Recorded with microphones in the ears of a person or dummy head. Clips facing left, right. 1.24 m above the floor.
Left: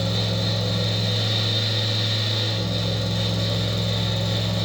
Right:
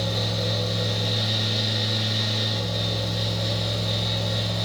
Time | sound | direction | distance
0.0 | a fan | 70° left (ahead or behind) | 1.4 m